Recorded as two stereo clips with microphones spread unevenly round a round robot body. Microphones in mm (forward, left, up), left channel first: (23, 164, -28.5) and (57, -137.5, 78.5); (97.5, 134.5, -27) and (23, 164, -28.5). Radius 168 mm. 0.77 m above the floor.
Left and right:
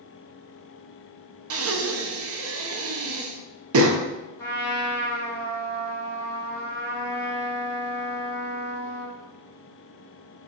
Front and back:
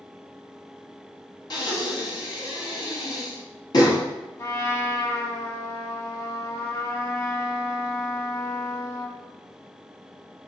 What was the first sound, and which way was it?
Breathing, 25° right.